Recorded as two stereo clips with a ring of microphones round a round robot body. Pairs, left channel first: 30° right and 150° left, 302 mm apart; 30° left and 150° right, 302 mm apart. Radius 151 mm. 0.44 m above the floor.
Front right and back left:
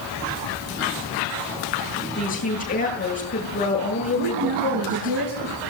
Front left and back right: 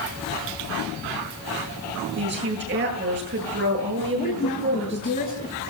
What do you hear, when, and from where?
2.2 s a woman speaking: 95° right, 9.5 m
4.1 s a woman speaking: 100° left, 6.5 m